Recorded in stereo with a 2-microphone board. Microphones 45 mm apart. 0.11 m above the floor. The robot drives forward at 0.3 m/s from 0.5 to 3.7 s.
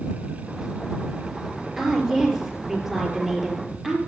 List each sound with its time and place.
1.8 s a woman speaking: 10° right (ahead or behind), 2.5 m